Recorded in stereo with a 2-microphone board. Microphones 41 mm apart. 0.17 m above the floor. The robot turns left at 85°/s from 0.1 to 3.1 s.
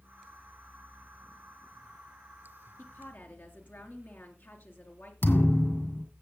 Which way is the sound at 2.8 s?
60° left (ahead or behind).